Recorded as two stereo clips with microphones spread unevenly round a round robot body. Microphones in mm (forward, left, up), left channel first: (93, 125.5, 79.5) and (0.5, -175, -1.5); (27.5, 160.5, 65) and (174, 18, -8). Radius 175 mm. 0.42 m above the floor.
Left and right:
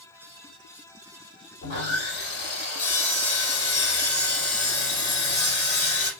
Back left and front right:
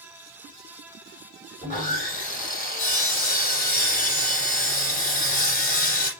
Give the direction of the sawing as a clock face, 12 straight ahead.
9 o'clock.